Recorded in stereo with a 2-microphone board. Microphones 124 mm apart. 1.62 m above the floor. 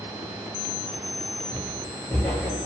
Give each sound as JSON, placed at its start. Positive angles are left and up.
{"t": 1.5, "sound": "footsteps", "side_deg": 20, "distance_m": 1.7}